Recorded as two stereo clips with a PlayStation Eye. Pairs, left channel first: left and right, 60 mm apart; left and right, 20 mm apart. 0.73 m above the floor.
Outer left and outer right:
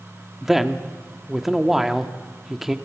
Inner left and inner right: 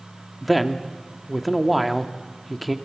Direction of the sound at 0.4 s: 5° right (ahead or behind).